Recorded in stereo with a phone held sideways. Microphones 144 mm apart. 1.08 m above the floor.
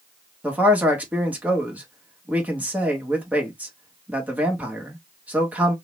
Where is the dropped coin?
I don't hear a dropped coin.